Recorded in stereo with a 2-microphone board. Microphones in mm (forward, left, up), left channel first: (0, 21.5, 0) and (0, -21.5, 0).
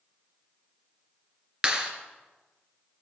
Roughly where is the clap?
Centre.